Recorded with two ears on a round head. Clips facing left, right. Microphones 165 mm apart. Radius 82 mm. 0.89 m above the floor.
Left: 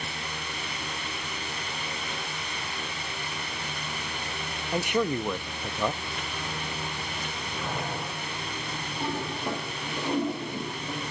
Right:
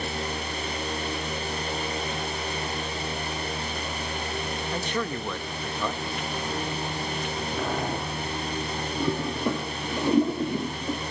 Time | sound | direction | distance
4.7 | a man speaking | 10° left (ahead or behind) | 0.7 m
7.6 | boiling | 50° right (ahead or behind) | 10 m
9.0 | a toilet flushing | 80° right | 6 m